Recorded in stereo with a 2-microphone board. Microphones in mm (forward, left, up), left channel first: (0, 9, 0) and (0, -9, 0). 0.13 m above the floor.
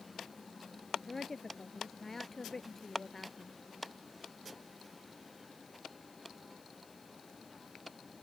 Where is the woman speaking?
15° left (ahead or behind).